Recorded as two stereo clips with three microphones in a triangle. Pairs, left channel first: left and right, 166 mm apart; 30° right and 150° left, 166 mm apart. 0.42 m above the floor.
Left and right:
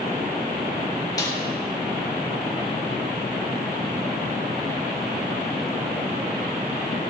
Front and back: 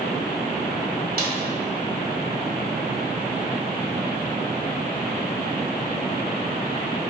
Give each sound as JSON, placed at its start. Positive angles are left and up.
{"t": 1.2, "sound": "a snare drum", "azimuth_deg": 155, "distance_m": 1.6}